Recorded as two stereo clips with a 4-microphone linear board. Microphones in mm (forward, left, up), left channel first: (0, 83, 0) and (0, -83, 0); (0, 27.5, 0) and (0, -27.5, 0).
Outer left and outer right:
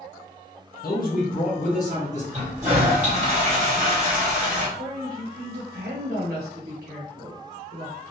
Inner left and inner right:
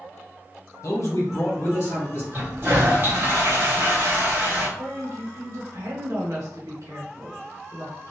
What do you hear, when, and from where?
0.8 s a man speaking: 65° left (ahead or behind), 1.1 m; by 2.2 s 45° left (ahead or behind), 1.9 m
2.3 s a toilet flushing: 40° right (ahead or behind), 1.4 m
4.8 s a woman speaking: 75° right (ahead or behind), 1.1 m